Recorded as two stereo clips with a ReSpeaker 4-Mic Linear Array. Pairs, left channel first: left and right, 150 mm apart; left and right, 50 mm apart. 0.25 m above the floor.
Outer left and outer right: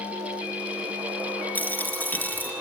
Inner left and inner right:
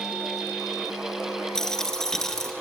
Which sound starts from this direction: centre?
A dropped coin, at 1.6 s.